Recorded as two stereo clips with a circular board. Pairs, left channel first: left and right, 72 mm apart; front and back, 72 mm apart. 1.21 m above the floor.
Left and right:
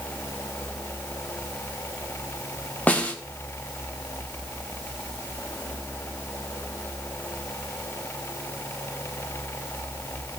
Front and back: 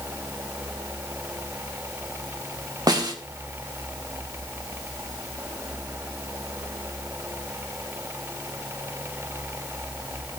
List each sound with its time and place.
2.9 s a snare drum: 160° left, 1.6 m